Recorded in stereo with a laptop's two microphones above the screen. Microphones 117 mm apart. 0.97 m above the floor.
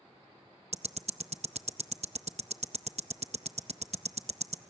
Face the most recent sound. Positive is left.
turn(degrees=-65)  # may be behind; listen again after turning